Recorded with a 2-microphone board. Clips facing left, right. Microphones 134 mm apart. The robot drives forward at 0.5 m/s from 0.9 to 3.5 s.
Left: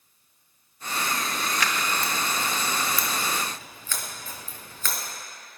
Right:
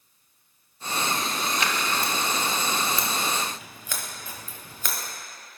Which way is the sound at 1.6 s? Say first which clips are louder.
Even; 25° right (ahead or behind).